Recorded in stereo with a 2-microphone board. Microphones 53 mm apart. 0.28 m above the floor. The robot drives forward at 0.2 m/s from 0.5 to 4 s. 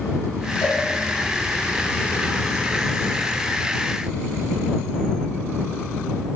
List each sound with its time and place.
0.6 s a cowbell: 45° left (ahead or behind), 3.5 m